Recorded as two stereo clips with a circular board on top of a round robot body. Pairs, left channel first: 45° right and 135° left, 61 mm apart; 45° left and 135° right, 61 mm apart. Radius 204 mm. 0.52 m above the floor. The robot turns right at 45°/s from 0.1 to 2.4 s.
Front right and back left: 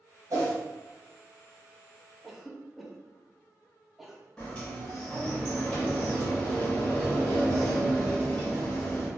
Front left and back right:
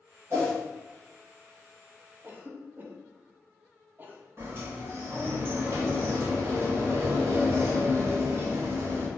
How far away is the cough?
About 0.9 m.